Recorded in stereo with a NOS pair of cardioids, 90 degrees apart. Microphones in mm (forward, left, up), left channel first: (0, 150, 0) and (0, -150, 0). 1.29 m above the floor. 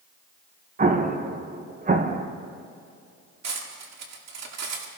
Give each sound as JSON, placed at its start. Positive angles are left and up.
{"t": 0.8, "sound": "an explosion", "azimuth_deg": -30, "distance_m": 1.5}
{"t": 3.4, "sound": "cutlery clinking", "azimuth_deg": -60, "distance_m": 2.0}